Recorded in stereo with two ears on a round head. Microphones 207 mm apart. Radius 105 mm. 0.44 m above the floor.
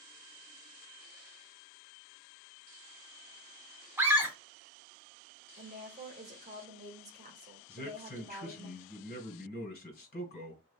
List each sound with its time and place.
4.0 s a scream: 10° right (ahead or behind), 0.8 m
5.6 s a woman speaking: 30° right (ahead or behind), 1.5 m
7.7 s a man speaking: 40° left (ahead or behind), 2 m